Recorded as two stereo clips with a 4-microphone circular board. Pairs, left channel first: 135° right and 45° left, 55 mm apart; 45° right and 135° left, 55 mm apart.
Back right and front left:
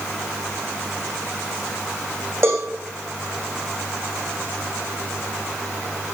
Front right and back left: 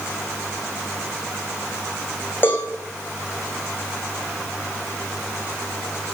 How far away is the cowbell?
About 7 m.